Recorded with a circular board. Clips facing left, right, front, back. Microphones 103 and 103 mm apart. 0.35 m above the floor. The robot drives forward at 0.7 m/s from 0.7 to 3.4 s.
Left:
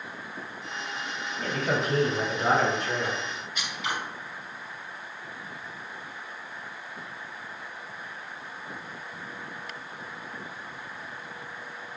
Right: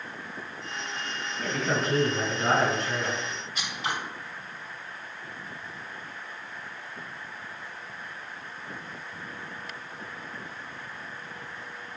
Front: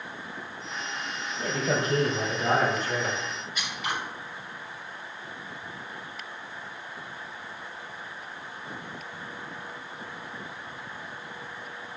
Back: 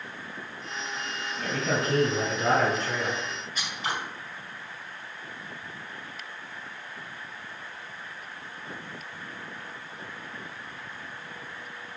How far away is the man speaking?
About 2.5 m.